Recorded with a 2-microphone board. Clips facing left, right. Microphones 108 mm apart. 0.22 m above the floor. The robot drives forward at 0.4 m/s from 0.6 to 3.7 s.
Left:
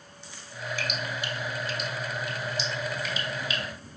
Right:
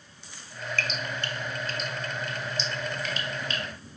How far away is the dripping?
About 0.7 m.